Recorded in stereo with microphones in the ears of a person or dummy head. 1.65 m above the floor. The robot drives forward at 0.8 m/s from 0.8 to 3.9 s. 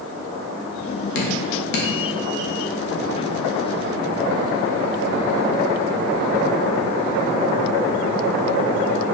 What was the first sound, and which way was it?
Dripping, 60° left (ahead or behind).